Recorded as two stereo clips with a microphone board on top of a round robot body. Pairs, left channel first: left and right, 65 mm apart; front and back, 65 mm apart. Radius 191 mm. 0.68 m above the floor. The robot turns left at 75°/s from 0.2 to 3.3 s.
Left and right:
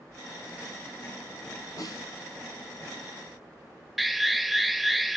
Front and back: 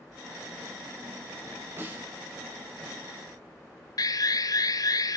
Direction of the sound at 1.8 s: 125° left.